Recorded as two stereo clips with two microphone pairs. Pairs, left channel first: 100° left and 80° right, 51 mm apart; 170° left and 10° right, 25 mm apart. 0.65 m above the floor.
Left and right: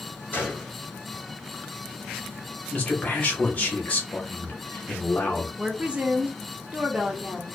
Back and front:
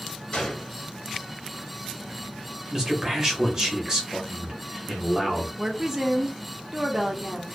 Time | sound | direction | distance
0.3 | a gunshot | 145° left | 1.7 m
2.7 | a man speaking | 50° left | 0.9 m
5.6 | a woman speaking | 55° right | 0.6 m